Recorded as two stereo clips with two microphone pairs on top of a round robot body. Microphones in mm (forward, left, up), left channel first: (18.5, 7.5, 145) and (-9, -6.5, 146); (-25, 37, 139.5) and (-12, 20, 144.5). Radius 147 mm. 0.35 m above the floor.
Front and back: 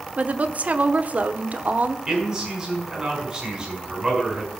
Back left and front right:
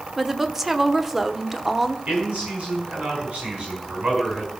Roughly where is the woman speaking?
Behind right.